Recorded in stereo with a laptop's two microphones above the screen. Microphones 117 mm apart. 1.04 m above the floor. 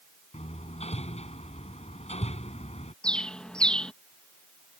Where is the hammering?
60° left (ahead or behind).